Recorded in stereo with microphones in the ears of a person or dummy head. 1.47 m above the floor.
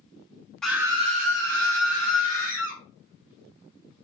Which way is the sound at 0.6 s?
Centre (ahead or behind).